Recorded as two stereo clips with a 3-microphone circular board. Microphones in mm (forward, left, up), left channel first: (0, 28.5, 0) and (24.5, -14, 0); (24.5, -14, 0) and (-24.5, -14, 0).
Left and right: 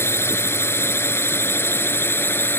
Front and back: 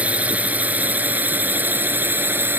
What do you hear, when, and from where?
0.0 s a drone: 125° left; by 2.6 s 145° left